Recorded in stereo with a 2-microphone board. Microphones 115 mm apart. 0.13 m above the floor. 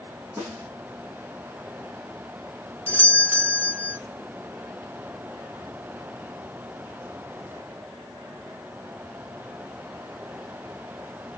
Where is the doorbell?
20° right (ahead or behind), 1.7 m.